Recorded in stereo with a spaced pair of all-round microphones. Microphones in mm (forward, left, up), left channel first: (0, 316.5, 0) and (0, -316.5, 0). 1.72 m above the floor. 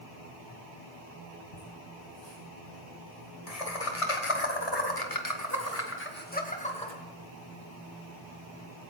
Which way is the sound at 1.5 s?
75° left (ahead or behind).